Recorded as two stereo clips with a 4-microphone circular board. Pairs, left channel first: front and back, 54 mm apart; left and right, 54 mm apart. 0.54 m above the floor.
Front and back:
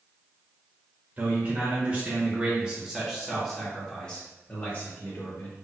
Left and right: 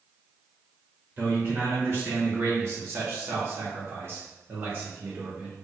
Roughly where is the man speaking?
Behind right.